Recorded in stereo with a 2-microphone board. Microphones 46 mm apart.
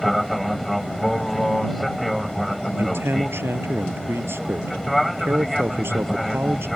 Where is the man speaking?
60° right (ahead or behind).